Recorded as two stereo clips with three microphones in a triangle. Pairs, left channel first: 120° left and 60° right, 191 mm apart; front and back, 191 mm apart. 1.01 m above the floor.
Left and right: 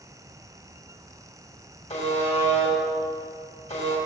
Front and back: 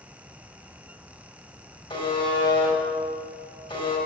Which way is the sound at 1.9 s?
65° left.